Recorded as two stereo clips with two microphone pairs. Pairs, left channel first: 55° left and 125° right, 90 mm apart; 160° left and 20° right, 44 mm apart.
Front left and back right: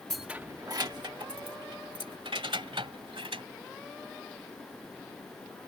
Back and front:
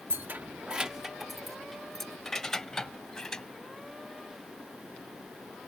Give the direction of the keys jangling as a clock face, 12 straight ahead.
1 o'clock.